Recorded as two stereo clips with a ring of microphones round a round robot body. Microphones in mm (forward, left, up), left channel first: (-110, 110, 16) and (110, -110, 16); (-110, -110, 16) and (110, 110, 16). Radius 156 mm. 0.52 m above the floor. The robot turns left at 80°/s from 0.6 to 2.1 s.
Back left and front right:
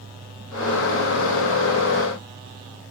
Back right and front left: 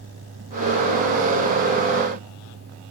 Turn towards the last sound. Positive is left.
No sound to turn to.